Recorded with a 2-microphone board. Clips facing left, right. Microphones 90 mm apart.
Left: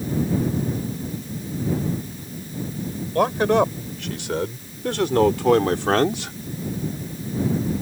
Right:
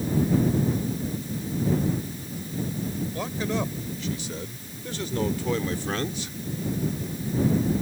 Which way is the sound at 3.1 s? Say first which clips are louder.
Left 13 dB; 65° left (ahead or behind).